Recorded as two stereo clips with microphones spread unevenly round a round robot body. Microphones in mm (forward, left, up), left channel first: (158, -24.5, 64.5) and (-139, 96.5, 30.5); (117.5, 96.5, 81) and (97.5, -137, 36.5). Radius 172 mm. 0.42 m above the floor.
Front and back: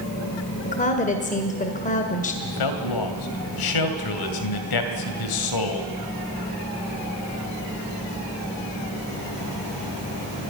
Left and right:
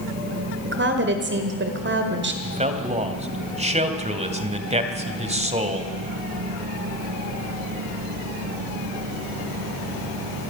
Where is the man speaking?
35° right, 2.5 m.